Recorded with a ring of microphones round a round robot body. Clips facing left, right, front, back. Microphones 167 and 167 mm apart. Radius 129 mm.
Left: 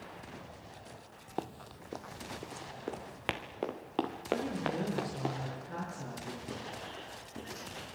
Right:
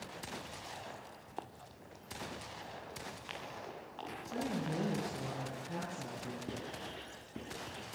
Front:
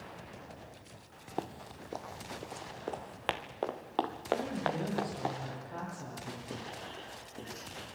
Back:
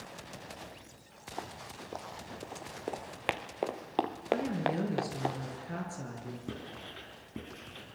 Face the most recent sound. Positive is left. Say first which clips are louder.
# left 1 dB, even
turn(degrees=-165)